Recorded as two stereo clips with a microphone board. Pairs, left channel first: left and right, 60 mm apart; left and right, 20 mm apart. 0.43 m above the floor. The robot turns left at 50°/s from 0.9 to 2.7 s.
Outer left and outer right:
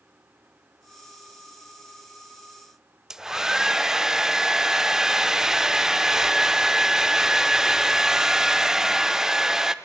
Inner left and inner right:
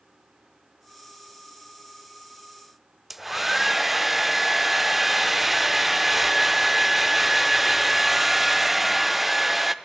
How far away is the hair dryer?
About 0.5 m.